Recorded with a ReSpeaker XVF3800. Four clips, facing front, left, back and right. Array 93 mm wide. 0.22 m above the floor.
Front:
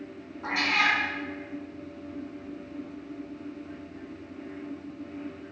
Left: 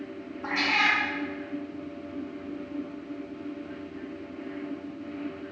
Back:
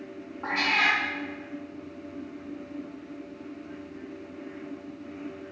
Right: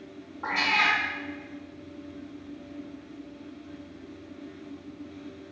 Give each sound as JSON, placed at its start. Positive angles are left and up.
{"t": 0.4, "sound": "a cat meowing", "azimuth_deg": -125, "distance_m": 0.9}